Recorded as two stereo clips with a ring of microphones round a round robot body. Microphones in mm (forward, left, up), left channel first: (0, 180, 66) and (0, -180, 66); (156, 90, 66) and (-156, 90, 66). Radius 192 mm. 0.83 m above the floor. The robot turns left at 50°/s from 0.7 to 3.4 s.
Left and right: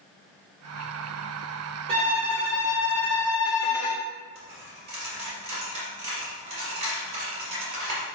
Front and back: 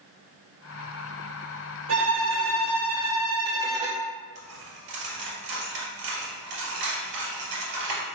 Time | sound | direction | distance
1.9 | a violin | 165° right | 1.9 m
4.3 | a dropped coin | 165° right | 2 m